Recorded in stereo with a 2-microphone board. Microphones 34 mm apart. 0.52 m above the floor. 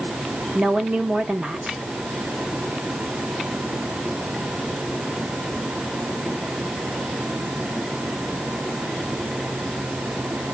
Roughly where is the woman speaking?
Right.